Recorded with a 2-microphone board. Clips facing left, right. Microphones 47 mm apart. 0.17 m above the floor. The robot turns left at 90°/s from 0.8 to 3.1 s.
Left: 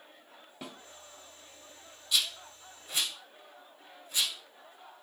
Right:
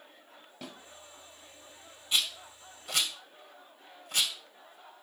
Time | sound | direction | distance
0.6 | a snare drum | 5° left (ahead or behind) | 1.6 m
2.1 | a rattle | 30° right (ahead or behind) | 2.0 m